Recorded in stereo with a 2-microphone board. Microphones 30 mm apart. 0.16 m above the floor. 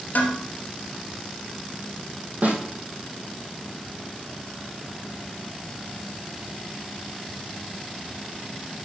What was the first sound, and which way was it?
Dishes clattering, 65° left (ahead or behind).